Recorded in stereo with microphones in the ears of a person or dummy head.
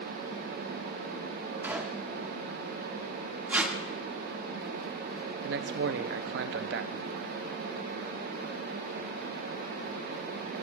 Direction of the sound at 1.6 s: 5° right (ahead or behind).